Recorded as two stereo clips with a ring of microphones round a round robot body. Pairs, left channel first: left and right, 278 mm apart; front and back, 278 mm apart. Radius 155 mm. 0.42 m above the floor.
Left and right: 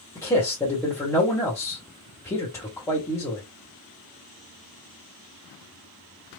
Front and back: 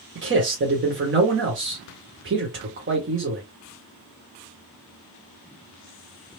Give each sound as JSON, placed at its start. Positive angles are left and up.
{"t": 0.1, "sound": "a man speaking", "azimuth_deg": 165, "distance_m": 1.5}